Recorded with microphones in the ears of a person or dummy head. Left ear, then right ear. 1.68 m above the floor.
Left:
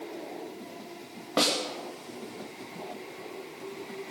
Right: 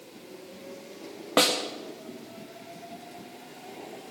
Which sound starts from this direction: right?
A snare drum, at 1.4 s.